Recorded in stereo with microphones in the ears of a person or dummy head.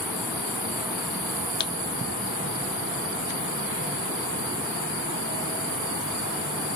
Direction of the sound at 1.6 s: 25° left (ahead or behind).